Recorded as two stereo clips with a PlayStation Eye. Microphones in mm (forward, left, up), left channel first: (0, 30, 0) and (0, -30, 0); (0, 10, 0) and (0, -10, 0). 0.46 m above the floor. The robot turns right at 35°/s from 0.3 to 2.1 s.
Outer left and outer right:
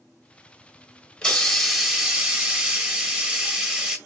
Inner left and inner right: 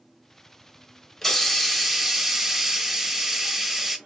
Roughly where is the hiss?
Behind.